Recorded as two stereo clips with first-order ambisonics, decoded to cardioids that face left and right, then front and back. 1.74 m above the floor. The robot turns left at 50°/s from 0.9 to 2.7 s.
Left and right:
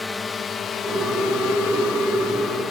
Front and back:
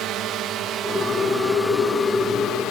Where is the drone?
170° left; by 2.7 s 25° left.